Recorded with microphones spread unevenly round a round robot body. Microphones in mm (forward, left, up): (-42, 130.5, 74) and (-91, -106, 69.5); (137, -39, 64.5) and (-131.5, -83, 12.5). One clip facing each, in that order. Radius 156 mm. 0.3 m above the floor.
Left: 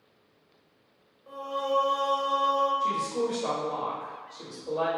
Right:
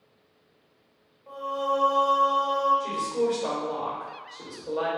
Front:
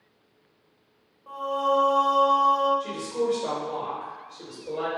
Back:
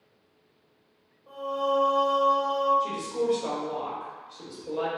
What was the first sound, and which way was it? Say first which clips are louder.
Singing: right 1 dB, front 2 dB; straight ahead.